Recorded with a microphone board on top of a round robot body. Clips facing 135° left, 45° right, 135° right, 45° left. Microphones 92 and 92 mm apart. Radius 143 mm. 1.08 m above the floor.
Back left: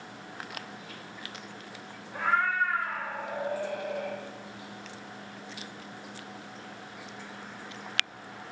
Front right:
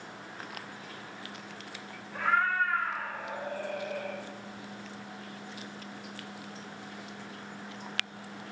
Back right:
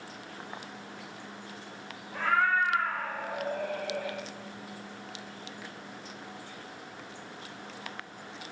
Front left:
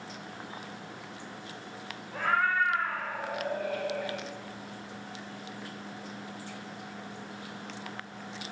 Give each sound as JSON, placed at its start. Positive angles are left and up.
{"t": 2.1, "sound": "a cat meowing", "azimuth_deg": -140, "distance_m": 0.8}